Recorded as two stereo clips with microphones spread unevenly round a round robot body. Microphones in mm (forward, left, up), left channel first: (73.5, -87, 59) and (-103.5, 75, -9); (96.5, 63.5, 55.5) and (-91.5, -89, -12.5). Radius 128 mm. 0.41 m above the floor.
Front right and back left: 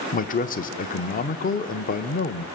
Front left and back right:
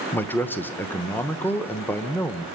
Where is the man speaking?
75° right, 1.0 m.